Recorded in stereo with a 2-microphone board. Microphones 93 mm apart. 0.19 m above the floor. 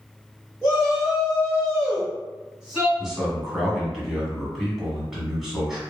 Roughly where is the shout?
Left.